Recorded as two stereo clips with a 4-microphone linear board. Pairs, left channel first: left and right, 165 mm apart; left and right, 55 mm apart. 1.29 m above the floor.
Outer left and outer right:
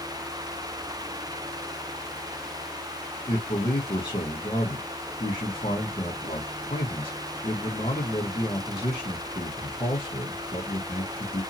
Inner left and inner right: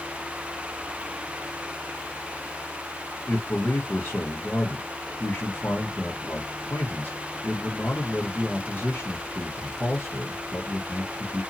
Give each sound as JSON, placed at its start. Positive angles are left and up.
{"t": 3.3, "sound": "a man speaking", "side_deg": 30, "distance_m": 0.9}